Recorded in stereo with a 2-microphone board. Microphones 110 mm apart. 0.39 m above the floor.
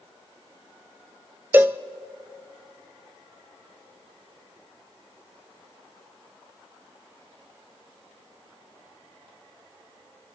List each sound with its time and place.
1.5 s a cowbell: 20° right (ahead or behind), 0.6 m